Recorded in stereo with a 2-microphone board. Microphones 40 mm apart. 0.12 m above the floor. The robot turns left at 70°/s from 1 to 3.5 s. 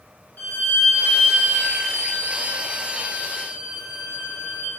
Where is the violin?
120° left, 1.3 m; by 4.7 s 55° right, 1.3 m.